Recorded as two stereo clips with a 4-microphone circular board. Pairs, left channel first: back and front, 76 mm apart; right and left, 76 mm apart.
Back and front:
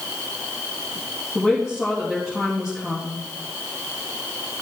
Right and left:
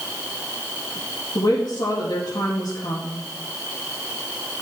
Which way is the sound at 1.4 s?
85° right.